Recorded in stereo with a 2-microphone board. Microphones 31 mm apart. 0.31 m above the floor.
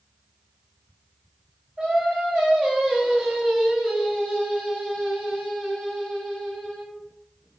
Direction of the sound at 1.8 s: 20° right (ahead or behind).